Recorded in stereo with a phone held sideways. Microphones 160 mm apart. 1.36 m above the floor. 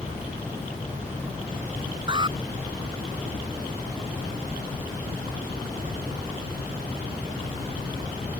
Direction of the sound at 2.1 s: 30° right (ahead or behind).